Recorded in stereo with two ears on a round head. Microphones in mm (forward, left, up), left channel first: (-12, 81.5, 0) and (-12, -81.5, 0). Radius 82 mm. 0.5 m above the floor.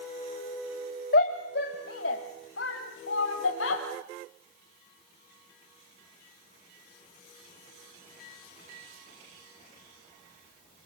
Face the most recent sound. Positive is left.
turn(degrees=75)  # may be behind; listen again after turning